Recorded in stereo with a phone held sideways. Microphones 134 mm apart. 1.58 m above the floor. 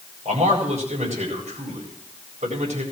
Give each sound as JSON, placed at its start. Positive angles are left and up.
{"t": 0.2, "sound": "a man speaking", "side_deg": -55, "distance_m": 8.0}